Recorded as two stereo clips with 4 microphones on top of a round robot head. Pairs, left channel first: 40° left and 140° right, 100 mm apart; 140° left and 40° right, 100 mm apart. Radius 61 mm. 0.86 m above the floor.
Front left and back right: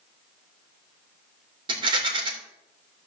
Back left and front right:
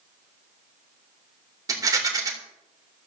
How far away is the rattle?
About 3 m.